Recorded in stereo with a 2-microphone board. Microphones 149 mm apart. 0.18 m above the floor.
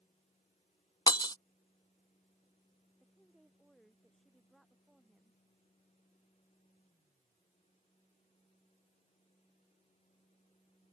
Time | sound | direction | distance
1.1 | breaking glass | 30° left (ahead or behind) | ?
3.0 | a woman speaking | centre (ahead or behind) | ?